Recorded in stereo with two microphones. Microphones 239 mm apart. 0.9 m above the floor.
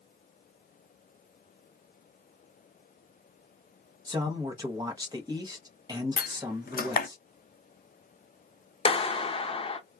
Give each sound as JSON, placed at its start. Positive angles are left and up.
{"t": 4.1, "sound": "a man speaking", "side_deg": -20, "distance_m": 1.0}
{"t": 6.2, "sound": "a door slam", "side_deg": 40, "distance_m": 0.5}
{"t": 8.8, "sound": "a clap", "side_deg": 25, "distance_m": 0.5}